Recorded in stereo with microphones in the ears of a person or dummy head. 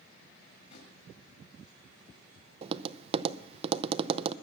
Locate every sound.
0.5 s a drawer: 45° left (ahead or behind), 4 m
2.6 s tapping: 35° right (ahead or behind), 0.5 m